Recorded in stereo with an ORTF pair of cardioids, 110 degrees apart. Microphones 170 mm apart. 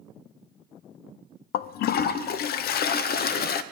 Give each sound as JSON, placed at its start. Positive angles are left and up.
{"t": 1.5, "sound": "a toilet flushing", "azimuth_deg": 65, "distance_m": 0.5}